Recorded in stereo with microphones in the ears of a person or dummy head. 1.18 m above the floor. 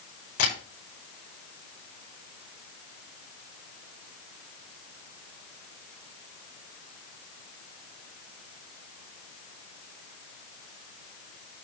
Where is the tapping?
45° left (ahead or behind), 5.5 m.